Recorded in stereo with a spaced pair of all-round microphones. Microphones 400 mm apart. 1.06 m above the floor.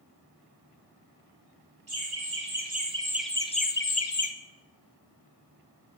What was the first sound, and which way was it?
Laughter, 40° right (ahead or behind).